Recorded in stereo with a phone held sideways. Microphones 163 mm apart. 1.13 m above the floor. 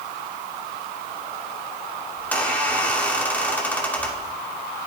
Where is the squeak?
10° left (ahead or behind), 2 m.